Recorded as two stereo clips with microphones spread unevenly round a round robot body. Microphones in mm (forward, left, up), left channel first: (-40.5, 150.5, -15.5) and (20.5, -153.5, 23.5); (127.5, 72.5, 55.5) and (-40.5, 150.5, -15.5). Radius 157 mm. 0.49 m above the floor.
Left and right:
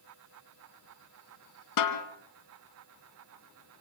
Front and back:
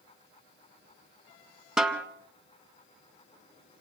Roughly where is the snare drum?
Left.